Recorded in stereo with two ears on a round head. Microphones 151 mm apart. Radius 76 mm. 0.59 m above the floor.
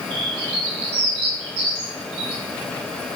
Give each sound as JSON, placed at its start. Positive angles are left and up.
{"t": 0.1, "sound": "a bird", "side_deg": -70, "distance_m": 3.0}